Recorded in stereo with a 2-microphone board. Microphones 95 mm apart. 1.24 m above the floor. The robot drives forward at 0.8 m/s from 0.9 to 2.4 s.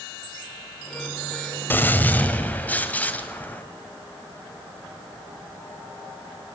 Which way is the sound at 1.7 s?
20° left (ahead or behind).